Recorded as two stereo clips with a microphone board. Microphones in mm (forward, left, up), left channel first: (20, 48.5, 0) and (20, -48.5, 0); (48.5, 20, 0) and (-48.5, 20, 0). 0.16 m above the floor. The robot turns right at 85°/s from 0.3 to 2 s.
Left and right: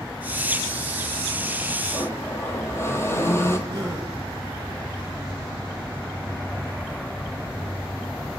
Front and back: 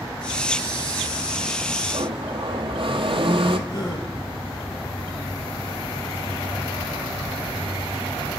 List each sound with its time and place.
1.9 s a blender: 145° left, 0.7 m; by 3.6 s 150° left, 0.7 m
3.7 s a gasp: 40° right, 1.7 m